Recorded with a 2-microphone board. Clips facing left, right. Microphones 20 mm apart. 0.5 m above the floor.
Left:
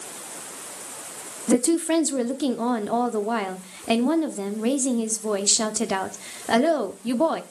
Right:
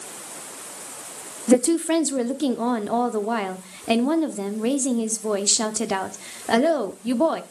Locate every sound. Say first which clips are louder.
1.5 s a woman speaking: right 2 dB; 5° right (ahead or behind), 0.7 m